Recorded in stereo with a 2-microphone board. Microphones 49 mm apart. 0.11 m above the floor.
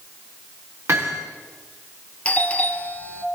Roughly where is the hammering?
Right.